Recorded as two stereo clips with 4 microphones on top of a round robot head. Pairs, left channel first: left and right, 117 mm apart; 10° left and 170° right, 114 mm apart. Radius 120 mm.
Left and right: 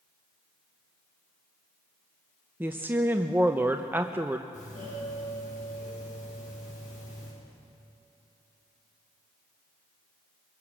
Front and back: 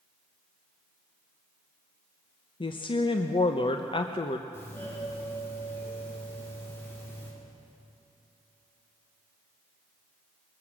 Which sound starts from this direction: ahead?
A woman speaking, at 2.6 s.